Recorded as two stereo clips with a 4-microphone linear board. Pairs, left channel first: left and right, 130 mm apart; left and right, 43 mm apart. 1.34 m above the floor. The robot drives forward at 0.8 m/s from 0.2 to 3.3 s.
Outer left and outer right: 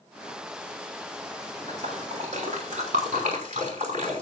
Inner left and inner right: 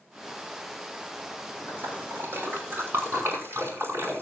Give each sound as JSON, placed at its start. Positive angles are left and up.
{"t": 1.7, "sound": "a splash", "side_deg": -60, "distance_m": 6.0}